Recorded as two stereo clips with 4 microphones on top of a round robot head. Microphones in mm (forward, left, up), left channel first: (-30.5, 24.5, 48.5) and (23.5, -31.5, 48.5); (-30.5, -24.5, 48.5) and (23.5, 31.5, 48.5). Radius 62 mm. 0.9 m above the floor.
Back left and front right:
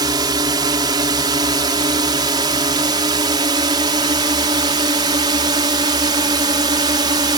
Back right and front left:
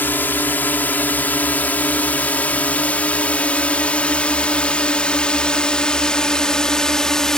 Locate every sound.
0.0 s a drone: 70° right; by 7.4 s 50° right